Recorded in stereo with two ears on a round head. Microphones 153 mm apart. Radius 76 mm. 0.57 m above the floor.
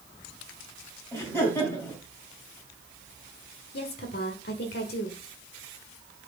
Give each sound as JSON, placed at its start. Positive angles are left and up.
{"t": 1.1, "sound": "laughter", "side_deg": 15, "distance_m": 4.0}
{"t": 3.7, "sound": "a woman speaking", "side_deg": 60, "distance_m": 1.7}